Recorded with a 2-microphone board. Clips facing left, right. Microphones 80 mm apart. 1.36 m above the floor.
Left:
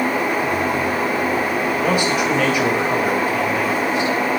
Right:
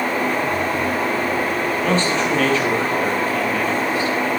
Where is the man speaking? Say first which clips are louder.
Even; 10° left (ahead or behind), 8 m; by 4.2 s 20° left (ahead or behind), 8 m.